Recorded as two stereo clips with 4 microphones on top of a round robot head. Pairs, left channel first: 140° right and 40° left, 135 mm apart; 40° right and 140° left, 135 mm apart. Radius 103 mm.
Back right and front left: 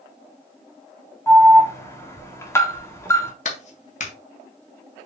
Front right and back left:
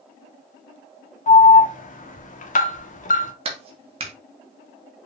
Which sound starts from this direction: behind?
A clap, at 3.5 s.